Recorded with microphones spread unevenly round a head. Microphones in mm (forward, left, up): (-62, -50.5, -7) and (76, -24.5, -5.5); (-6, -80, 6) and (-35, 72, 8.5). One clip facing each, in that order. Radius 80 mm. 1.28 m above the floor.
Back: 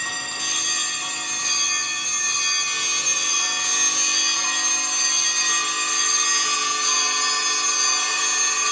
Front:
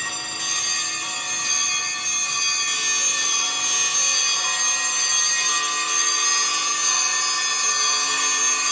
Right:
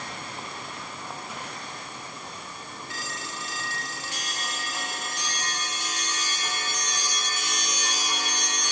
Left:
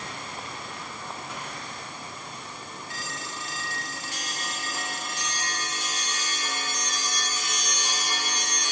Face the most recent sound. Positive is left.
No sound to turn to.